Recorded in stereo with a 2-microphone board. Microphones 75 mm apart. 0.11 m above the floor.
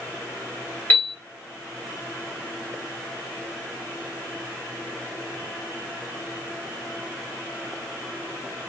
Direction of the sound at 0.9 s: 25° left (ahead or behind).